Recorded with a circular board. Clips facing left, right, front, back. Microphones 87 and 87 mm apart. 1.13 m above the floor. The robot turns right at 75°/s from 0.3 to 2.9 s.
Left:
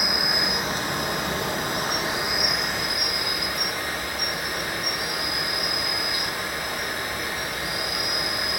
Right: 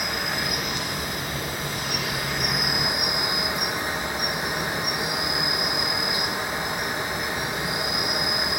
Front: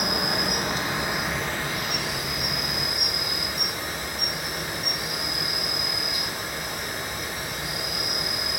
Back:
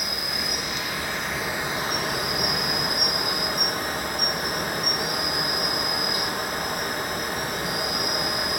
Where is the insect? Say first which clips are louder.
Left 1 dB, front 5 dB; 10° left, 1.9 m; by 8.6 s 155° right, 1.9 m.